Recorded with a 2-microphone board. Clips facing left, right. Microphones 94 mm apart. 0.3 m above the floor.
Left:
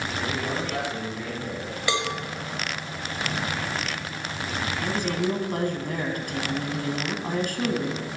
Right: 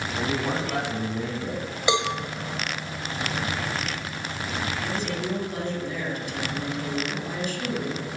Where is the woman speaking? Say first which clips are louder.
Left 3 dB; 55° left (ahead or behind), 2.5 m.